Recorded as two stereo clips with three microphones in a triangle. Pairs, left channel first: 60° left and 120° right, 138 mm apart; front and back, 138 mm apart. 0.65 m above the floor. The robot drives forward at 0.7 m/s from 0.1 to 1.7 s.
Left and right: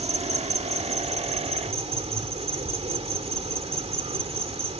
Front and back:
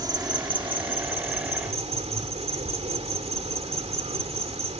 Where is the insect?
130° right; by 4.8 s 150° right.